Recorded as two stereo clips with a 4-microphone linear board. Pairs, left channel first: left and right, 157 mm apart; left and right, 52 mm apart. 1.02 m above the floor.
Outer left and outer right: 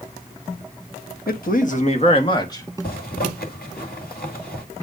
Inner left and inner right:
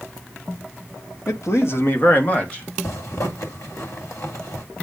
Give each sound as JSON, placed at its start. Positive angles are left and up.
{"t": 1.3, "sound": "a man speaking", "side_deg": 70, "distance_m": 1.3}
{"t": 2.8, "sound": "a zipper", "side_deg": 75, "distance_m": 2.5}